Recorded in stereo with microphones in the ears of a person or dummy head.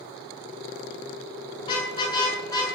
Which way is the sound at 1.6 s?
30° left (ahead or behind).